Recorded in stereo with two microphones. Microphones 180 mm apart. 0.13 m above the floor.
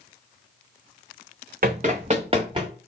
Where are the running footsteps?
55° right (ahead or behind), 0.5 m; by 2.7 s 30° right (ahead or behind), 1.3 m.